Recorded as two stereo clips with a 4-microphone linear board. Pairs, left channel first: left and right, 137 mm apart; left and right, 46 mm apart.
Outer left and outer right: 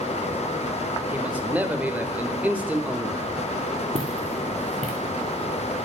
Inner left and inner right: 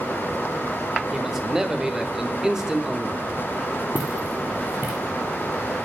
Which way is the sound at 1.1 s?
10° right (ahead or behind).